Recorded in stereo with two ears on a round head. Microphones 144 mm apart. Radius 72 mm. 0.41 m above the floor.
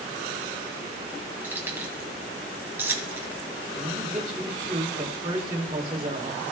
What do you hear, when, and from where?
1.4 s keys jangling: 15° right (ahead or behind), 2 m
3.8 s a man speaking: 35° right (ahead or behind), 1.7 m